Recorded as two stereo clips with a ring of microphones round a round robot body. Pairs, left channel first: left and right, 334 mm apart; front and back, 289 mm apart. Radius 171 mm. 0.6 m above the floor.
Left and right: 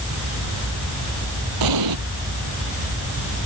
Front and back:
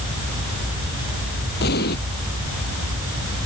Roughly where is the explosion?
Ahead right.